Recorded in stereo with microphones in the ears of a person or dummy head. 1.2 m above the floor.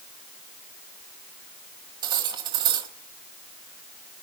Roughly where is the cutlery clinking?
Right.